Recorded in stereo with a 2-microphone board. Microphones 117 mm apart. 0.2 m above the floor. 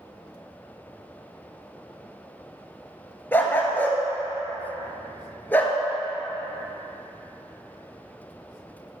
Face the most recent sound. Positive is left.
turn(degrees=15)  # may be behind; listen again after turning